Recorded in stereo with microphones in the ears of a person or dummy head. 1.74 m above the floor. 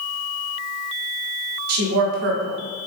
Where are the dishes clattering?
No dishes clattering in this recording.